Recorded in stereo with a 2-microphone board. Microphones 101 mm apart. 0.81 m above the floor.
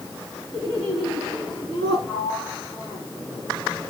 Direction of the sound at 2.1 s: 80° left.